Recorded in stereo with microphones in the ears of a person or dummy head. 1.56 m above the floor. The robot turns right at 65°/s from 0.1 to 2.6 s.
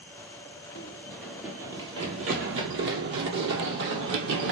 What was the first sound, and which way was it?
Running footsteps, 20° left (ahead or behind).